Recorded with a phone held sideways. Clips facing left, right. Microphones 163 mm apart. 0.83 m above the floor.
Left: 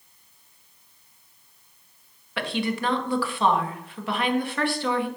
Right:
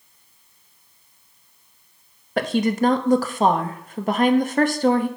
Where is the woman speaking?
45° right (ahead or behind), 0.9 m.